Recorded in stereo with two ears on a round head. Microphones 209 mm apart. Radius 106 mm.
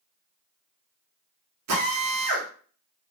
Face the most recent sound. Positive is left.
turn(degrees=-75)  # may be behind; listen again after turning